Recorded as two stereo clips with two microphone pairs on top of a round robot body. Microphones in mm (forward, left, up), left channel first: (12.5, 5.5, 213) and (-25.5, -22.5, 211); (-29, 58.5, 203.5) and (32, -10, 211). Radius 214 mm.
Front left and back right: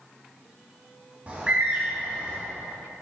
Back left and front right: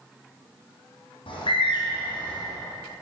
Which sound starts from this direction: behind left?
A bird, at 1.3 s.